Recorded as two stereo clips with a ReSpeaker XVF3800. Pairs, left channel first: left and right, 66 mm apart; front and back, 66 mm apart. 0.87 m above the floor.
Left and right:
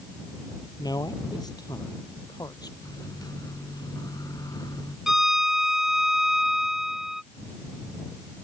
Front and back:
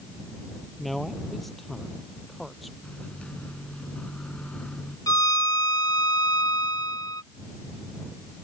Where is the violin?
5° right.